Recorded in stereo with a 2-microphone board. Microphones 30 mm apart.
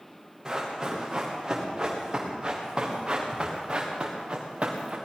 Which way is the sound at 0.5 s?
25° right (ahead or behind).